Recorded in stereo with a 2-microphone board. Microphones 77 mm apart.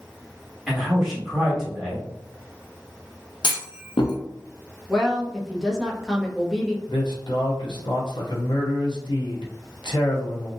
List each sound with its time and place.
0.7 s a man speaking: centre (ahead or behind), 1.5 m
3.4 s a clunk: 75° left (ahead or behind), 0.5 m
4.9 s a woman speaking: centre (ahead or behind), 0.9 m
6.9 s a man speaking: 80° left, 0.8 m